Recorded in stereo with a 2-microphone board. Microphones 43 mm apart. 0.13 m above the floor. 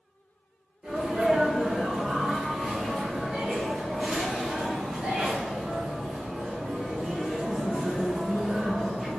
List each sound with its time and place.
0.8 s a sneeze: 20° right (ahead or behind), 1.1 m